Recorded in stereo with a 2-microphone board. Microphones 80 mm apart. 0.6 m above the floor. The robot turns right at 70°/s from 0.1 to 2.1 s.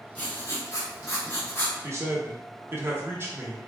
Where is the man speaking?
40° right (ahead or behind), 0.9 m; by 3.6 s 30° right (ahead or behind), 0.9 m.